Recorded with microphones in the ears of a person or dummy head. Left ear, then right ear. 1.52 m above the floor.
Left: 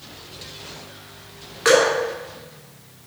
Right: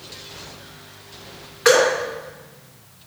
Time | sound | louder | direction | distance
1.6 | dripping | right 1 dB | 10° left (ahead or behind) | 3 m